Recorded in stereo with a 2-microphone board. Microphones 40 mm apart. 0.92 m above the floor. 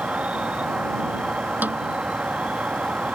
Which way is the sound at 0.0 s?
35° right (ahead or behind).